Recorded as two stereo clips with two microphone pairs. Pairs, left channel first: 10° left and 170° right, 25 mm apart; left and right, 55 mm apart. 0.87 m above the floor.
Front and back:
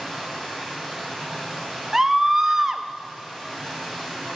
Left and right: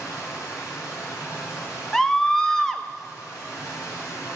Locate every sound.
0.0 s running water: 90° left, 3.5 m
1.9 s a scream: 150° left, 0.6 m